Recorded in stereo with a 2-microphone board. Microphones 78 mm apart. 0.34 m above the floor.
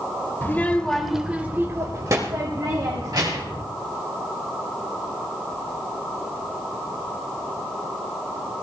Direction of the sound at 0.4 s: 25° left (ahead or behind).